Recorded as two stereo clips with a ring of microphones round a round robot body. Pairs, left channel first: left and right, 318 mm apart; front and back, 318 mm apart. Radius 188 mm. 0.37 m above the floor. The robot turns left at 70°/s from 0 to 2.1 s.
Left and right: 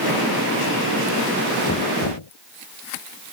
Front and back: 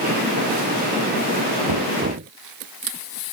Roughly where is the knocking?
Behind left.